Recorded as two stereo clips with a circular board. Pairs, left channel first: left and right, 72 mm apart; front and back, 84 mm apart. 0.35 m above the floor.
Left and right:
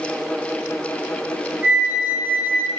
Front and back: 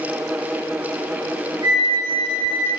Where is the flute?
155° right, 2.5 m.